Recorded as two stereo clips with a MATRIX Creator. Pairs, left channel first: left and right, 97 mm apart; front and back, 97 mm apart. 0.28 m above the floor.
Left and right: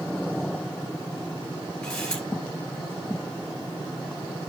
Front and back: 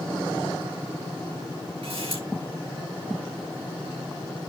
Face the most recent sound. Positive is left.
turn(degrees=170)